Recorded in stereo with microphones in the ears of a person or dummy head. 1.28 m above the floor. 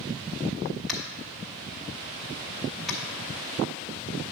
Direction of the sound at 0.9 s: 5° left (ahead or behind).